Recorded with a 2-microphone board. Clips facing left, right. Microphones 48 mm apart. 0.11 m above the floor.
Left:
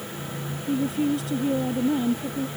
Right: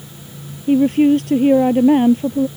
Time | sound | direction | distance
0.7 | a woman speaking | 55° right (ahead or behind) | ?